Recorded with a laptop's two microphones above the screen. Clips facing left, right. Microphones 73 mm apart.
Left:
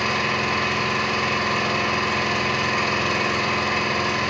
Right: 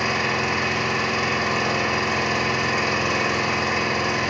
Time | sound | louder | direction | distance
0.0 | an engine running | even | 15° right (ahead or behind) | 2.5 m